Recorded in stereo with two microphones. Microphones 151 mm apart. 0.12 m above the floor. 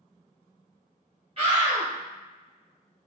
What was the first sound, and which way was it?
A scream, 40° right (ahead or behind).